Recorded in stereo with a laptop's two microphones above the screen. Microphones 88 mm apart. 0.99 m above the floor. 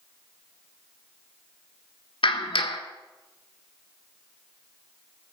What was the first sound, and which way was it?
A clap, 70° left (ahead or behind).